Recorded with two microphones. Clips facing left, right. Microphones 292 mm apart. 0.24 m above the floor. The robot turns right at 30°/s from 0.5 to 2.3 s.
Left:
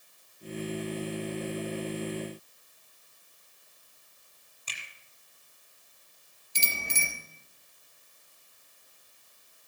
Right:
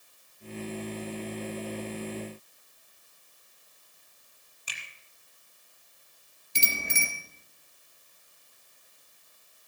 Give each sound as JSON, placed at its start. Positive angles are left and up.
{"t": 4.7, "sound": "a finger snap", "side_deg": -10, "distance_m": 6.0}
{"t": 6.5, "sound": "a bicycle bell", "side_deg": -75, "distance_m": 3.0}